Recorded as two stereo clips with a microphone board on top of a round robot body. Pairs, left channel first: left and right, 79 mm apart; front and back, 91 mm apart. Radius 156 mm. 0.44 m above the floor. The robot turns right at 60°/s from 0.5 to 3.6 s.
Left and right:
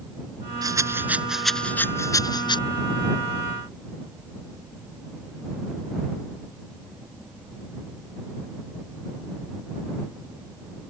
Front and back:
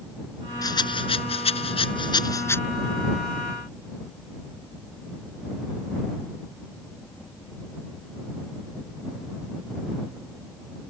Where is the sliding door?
I don't hear a sliding door.